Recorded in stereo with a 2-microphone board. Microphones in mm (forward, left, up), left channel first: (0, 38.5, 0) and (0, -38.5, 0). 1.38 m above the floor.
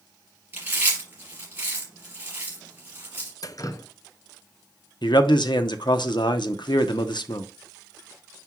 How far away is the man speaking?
About 0.8 m.